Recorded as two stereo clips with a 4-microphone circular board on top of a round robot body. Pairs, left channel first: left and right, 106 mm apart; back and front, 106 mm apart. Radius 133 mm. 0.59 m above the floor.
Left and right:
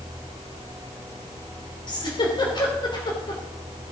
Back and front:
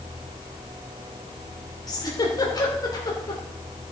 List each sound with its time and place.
1.9 s a giggle: 130° left, 2.5 m